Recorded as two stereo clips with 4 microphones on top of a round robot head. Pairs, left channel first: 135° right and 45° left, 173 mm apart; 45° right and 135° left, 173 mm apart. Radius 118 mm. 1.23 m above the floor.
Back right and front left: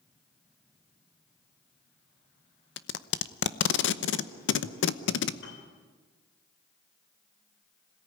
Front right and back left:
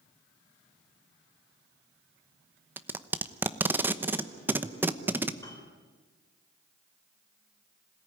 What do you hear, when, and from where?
2.8 s tape being pulled: 145° right, 0.9 m
5.4 s a piano: 115° right, 4 m